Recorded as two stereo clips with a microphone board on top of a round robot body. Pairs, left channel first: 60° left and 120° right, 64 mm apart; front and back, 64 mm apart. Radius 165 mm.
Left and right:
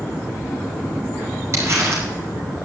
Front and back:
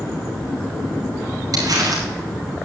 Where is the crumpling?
160° right, 5 m.